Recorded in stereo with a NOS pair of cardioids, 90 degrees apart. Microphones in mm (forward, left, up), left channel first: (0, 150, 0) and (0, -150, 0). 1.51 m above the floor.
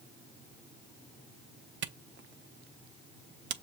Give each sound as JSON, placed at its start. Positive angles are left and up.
{"t": 1.8, "sound": "a camera shutter", "azimuth_deg": -40, "distance_m": 0.6}